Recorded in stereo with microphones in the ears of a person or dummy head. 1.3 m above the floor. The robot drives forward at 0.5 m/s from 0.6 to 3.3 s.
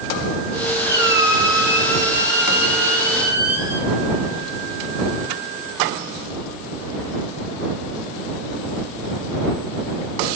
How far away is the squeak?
About 1.8 m.